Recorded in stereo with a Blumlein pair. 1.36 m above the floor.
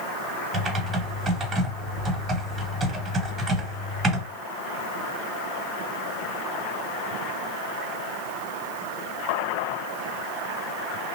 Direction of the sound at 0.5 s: 20° right.